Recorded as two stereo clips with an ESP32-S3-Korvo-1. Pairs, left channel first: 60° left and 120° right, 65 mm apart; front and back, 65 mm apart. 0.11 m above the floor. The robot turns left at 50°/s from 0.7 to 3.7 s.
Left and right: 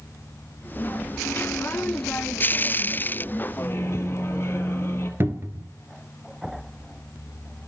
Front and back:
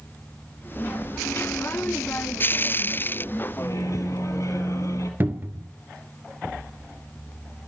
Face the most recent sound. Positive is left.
turn(degrees=-145)